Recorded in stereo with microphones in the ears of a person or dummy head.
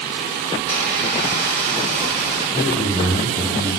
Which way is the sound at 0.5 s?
40° left (ahead or behind).